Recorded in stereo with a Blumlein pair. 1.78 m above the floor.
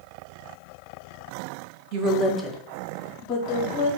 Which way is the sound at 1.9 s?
45° right.